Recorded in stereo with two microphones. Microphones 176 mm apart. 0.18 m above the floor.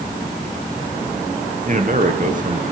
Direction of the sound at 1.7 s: 50° right (ahead or behind).